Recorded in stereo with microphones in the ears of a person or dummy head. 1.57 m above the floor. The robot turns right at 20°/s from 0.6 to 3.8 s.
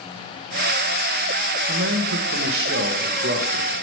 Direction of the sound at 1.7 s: 95° right.